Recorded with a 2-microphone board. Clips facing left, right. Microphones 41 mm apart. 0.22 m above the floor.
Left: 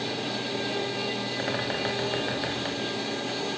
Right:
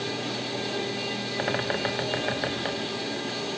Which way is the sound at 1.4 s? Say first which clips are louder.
Right 3 dB; 15° right (ahead or behind).